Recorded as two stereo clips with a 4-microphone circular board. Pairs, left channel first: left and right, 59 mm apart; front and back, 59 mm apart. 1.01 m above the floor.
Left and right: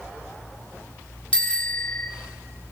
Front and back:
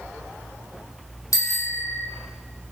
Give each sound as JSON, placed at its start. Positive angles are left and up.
{"t": 1.3, "sound": "a bicycle bell", "azimuth_deg": 20, "distance_m": 2.5}